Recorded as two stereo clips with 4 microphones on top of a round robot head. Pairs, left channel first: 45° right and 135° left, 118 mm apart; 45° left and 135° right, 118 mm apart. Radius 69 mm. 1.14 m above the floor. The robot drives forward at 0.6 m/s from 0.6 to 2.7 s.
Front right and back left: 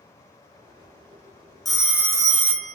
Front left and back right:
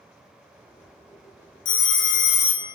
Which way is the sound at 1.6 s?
45° left.